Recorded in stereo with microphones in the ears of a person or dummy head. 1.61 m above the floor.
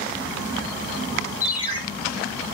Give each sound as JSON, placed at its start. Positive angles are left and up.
{"t": 1.4, "sound": "a ringtone", "side_deg": 25, "distance_m": 1.5}